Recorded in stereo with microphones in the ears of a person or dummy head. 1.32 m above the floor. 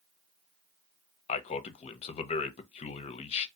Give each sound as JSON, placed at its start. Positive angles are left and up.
{"t": 1.3, "sound": "a man speaking", "side_deg": 40, "distance_m": 0.6}